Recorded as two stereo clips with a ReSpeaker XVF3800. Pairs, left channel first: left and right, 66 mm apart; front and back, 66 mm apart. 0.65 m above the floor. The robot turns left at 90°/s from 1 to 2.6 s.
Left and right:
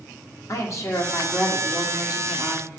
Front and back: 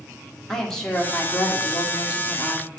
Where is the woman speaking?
80° left, 1.5 m; by 2.7 s 65° right, 1.5 m.